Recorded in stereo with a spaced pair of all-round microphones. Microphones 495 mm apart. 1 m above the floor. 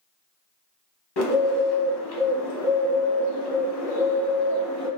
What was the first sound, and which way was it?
A bird, 55° left (ahead or behind).